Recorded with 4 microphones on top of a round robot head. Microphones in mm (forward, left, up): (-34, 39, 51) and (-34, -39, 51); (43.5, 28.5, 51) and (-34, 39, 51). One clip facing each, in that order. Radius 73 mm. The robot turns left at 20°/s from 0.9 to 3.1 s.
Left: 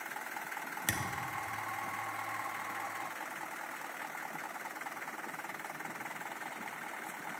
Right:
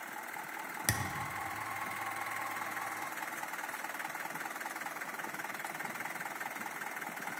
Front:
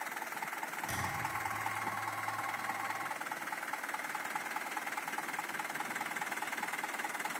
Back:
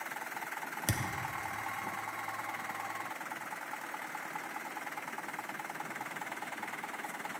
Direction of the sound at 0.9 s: 165° right.